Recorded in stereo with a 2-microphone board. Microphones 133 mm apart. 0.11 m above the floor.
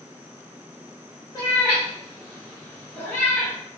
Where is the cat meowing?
30° left (ahead or behind), 4.5 m; by 3.6 s 15° left (ahead or behind), 5 m.